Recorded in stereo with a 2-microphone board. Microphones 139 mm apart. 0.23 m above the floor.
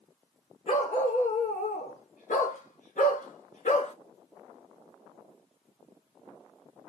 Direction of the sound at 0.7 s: 60° left (ahead or behind).